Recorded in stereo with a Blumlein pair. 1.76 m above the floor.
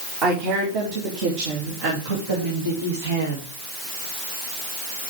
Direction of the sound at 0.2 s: 45° right.